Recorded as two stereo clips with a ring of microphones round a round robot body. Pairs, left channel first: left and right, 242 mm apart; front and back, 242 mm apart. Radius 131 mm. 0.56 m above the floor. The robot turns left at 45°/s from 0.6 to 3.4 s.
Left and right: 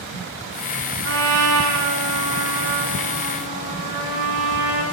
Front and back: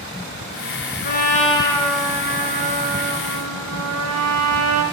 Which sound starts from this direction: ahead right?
A trumpet, at 1.0 s.